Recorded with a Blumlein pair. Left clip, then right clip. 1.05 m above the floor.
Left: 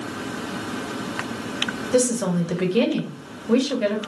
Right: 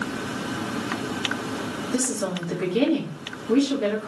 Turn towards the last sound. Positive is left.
turn(degrees=70)